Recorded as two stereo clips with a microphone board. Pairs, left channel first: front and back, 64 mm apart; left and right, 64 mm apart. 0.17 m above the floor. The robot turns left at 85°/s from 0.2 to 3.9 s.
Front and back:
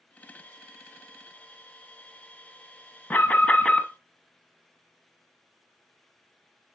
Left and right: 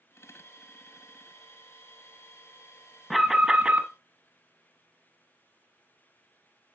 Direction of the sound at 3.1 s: Straight ahead.